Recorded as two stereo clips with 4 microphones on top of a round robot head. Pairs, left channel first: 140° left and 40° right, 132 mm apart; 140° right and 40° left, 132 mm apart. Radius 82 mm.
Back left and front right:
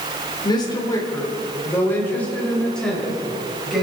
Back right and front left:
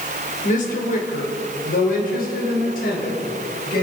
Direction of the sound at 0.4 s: 165° right.